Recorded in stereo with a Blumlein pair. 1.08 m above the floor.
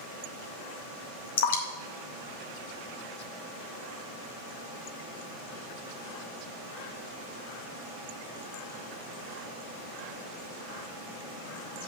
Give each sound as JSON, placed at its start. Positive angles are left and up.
{"t": 1.4, "sound": "dripping", "azimuth_deg": 55, "distance_m": 1.1}